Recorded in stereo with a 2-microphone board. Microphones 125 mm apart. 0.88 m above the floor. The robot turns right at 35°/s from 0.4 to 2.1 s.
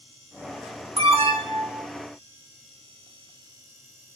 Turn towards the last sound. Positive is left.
turn(degrees=-35)